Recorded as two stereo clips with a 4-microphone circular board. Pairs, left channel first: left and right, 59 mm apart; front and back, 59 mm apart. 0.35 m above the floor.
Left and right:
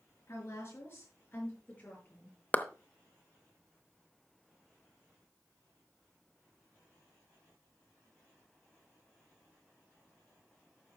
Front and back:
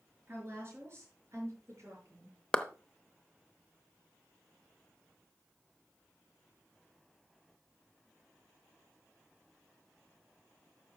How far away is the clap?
About 0.7 m.